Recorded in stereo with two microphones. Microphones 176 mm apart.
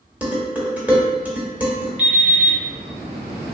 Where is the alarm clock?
70° right (ahead or behind), 1.3 m.